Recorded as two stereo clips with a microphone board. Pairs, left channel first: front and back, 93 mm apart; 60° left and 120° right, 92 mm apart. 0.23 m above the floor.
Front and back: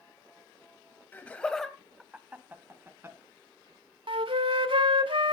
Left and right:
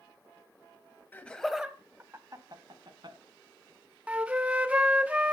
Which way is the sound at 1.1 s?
30° left.